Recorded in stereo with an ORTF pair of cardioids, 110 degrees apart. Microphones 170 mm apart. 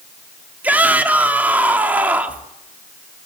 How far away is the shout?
About 2.5 m.